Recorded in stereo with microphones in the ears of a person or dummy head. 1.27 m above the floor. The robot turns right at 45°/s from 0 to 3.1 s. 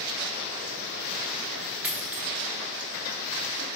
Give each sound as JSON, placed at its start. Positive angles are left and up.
{"t": 1.8, "sound": "a dropped coin", "side_deg": -10, "distance_m": 0.8}